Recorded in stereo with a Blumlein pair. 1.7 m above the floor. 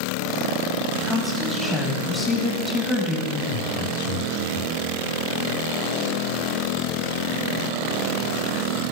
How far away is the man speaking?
About 3.5 m.